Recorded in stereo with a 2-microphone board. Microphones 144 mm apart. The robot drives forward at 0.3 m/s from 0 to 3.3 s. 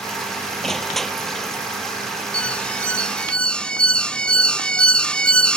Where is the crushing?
Centre (ahead or behind).